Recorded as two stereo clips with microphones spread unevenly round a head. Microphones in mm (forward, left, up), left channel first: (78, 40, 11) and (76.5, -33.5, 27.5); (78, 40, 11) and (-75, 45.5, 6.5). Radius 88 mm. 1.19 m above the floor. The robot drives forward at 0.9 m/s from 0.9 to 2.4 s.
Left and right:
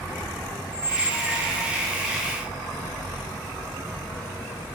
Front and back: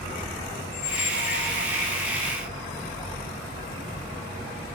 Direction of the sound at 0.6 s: 15° left.